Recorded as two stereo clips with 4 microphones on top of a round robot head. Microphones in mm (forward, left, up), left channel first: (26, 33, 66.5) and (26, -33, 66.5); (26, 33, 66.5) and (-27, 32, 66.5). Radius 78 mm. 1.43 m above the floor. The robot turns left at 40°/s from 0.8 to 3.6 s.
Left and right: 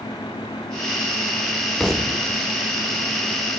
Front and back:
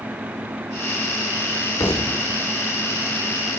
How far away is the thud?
About 3 m.